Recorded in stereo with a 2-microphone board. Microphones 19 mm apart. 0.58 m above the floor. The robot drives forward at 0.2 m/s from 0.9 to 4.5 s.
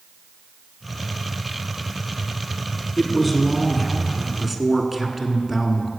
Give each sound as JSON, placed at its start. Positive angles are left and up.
{"t": 3.0, "sound": "a man speaking", "side_deg": -5, "distance_m": 1.4}